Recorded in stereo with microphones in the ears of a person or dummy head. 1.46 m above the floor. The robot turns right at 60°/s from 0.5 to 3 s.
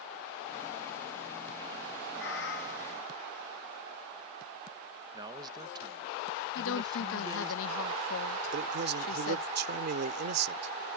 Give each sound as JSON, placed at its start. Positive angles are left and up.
{"t": 2.2, "sound": "a cat meowing", "azimuth_deg": 85}
{"t": 5.1, "sound": "a man speaking", "side_deg": -25}
{"t": 6.5, "sound": "a woman speaking", "side_deg": 65}
{"t": 8.5, "sound": "a man speaking", "side_deg": -55}